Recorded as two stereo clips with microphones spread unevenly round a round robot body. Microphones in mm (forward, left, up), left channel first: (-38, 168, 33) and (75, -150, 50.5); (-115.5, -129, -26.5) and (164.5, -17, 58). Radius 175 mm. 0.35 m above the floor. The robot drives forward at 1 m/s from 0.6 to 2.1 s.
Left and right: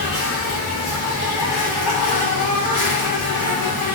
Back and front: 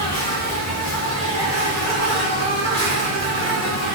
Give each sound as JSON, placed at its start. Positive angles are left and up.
{"t": 0.0, "sound": "an insect", "azimuth_deg": 135, "distance_m": 2.5}